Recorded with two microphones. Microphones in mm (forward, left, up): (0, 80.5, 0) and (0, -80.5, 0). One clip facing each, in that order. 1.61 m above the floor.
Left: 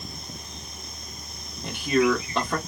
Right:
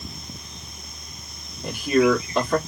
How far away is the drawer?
No drawer in this recording.